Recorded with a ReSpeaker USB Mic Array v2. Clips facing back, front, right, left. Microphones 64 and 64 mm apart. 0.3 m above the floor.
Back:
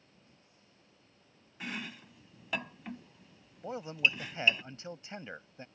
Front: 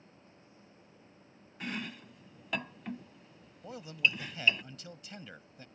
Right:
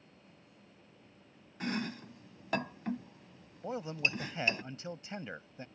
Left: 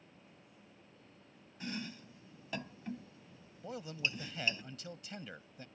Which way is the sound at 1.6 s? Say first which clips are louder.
Front 2 dB, right 7 dB; 95° right.